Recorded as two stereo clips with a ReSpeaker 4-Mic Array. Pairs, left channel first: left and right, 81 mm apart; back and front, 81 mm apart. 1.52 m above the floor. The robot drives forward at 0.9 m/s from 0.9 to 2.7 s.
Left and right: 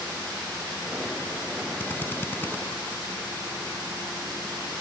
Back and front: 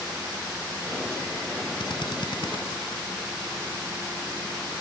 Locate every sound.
1.8 s a drill: 155° left